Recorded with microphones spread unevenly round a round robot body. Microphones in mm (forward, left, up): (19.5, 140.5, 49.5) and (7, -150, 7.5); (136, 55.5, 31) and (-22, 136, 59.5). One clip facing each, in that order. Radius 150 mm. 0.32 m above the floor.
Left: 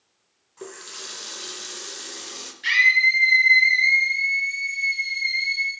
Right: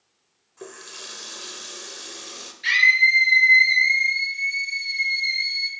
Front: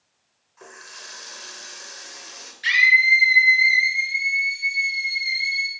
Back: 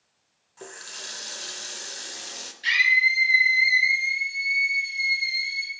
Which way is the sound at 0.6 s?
Straight behind.